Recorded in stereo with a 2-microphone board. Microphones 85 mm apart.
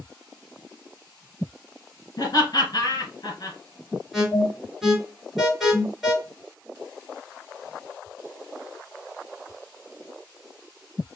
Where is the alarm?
5° right (ahead or behind), 3 m.